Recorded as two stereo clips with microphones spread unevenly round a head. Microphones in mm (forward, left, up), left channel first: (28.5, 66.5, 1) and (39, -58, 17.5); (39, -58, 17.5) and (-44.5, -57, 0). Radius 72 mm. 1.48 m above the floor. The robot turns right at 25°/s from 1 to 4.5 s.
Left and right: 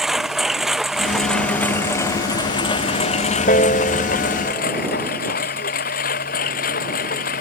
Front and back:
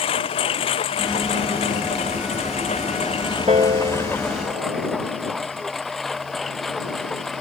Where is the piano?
135° left; by 4.8 s 160° left.